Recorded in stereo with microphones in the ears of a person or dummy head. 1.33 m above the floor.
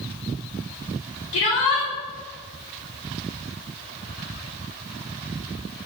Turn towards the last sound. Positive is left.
turn(degrees=70)  # may be behind; listen again after turning